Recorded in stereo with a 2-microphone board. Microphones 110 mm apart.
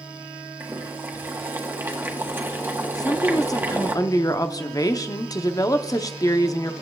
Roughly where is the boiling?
Centre.